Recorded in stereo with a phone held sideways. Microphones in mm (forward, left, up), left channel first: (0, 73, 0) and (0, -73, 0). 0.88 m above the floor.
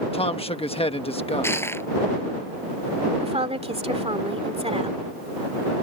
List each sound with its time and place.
0.1 s a man speaking: 40° left (ahead or behind)
1.4 s crushing: 15° left (ahead or behind)
3.2 s a woman speaking: 45° right (ahead or behind)